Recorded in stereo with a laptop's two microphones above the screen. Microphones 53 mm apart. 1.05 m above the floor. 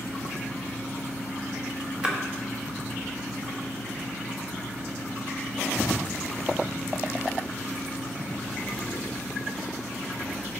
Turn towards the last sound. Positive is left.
turn(degrees=-20)  # may be behind; listen again after turning